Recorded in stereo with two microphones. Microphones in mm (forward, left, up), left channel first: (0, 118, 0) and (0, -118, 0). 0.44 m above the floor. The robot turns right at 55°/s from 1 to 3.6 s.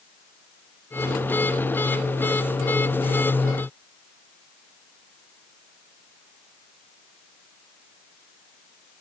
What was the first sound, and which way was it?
Only background noise.